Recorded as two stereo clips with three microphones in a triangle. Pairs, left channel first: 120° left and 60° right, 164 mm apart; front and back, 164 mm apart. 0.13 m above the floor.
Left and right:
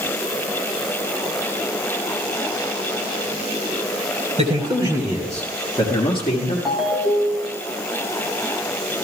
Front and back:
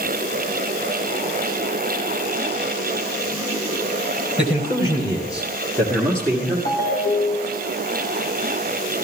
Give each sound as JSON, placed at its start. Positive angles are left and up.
{"t": 4.4, "sound": "a man speaking", "azimuth_deg": -40, "distance_m": 2.0}
{"t": 6.7, "sound": "a ringtone", "azimuth_deg": 30, "distance_m": 2.5}